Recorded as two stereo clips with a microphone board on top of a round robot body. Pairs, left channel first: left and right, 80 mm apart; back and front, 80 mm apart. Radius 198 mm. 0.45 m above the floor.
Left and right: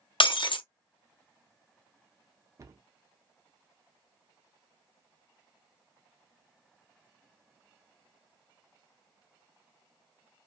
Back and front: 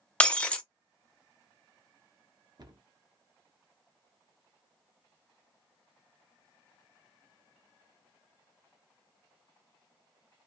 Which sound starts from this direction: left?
Breaking glass, at 0.2 s.